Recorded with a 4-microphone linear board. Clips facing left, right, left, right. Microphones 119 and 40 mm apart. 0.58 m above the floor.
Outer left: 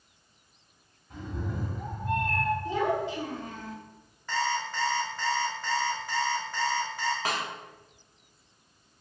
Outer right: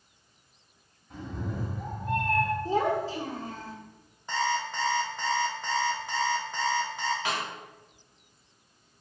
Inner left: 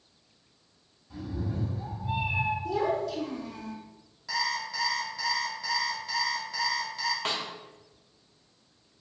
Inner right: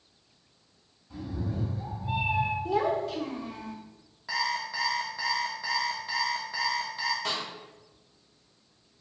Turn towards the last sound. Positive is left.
turn(degrees=40)  # may be behind; listen again after turning